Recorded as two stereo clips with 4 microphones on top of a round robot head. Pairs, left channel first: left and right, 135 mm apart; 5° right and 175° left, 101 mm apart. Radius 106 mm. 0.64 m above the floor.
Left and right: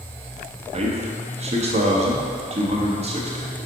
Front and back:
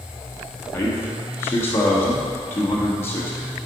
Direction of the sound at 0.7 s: 70° right.